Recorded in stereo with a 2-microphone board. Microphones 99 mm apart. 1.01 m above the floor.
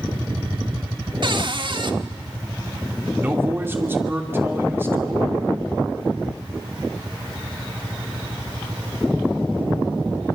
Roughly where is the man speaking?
Right.